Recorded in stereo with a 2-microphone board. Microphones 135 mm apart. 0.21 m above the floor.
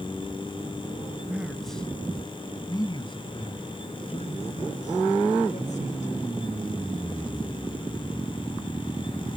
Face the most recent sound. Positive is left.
turn(degrees=60)  # may be behind; listen again after turning